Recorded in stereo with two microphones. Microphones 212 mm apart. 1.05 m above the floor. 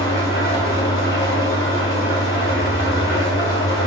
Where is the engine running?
70° left (ahead or behind), 2.5 m.